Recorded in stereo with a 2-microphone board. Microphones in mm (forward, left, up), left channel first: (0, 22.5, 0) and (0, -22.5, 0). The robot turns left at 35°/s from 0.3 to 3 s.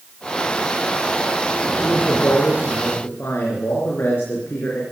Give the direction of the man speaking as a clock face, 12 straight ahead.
7 o'clock.